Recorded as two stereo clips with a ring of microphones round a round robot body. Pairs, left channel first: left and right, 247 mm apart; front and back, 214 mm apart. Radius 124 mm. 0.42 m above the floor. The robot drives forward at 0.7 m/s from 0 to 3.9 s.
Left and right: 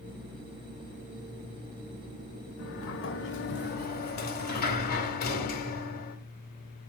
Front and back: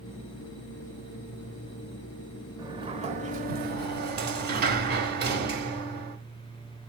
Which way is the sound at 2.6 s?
110° left.